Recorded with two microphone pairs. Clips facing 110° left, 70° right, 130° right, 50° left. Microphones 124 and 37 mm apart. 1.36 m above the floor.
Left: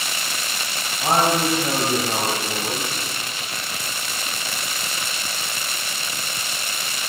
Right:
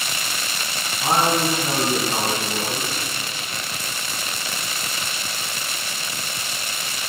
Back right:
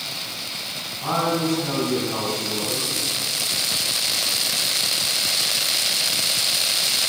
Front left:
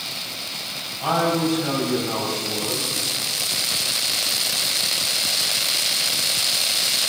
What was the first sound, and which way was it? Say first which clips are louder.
A man speaking: left 1 dB, front left 2 dB; 110° left.